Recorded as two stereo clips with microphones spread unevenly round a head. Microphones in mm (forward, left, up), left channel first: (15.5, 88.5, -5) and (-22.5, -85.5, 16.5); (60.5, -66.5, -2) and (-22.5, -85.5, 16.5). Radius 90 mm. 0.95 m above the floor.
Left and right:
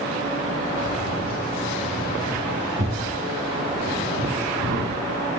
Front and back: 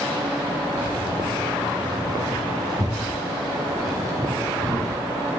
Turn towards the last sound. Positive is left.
turn(degrees=-115)